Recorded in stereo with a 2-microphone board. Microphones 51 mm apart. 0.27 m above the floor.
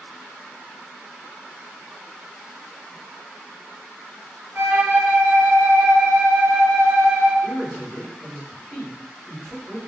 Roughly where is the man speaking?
Left.